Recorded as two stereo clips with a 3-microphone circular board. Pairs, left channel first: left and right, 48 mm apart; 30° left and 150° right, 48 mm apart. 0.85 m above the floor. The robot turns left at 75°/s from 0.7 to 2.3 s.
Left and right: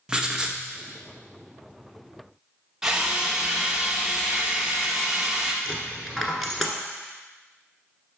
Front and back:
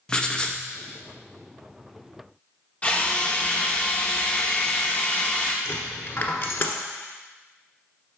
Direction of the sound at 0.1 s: 30° right.